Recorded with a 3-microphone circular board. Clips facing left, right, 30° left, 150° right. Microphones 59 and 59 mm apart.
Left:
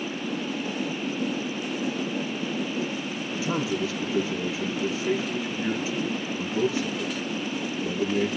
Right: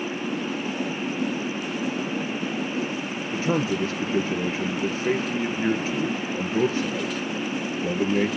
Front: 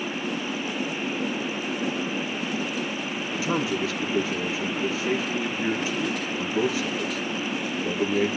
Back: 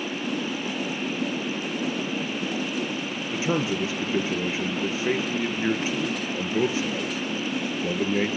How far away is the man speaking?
About 1.8 m.